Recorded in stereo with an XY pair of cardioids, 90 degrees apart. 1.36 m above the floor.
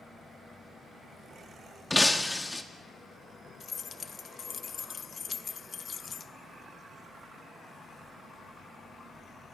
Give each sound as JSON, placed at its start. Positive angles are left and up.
{"t": 1.9, "sound": "breaking glass", "azimuth_deg": 15, "distance_m": 1.6}
{"t": 3.6, "sound": "keys jangling", "azimuth_deg": 50, "distance_m": 0.9}